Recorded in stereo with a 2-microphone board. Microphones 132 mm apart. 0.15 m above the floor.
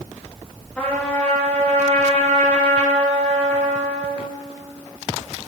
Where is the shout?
No shout in this recording.